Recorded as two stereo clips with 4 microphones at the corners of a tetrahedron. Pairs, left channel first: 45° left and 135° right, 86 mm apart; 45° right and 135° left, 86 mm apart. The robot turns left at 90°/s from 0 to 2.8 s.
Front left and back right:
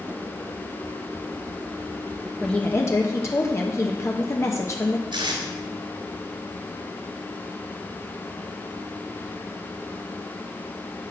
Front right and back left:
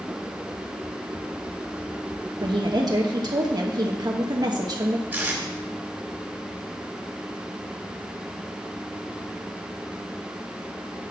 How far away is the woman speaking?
About 1.0 m.